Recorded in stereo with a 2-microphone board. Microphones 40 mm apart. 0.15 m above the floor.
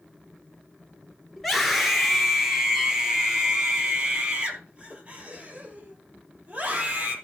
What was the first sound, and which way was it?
A scream, 5° left (ahead or behind).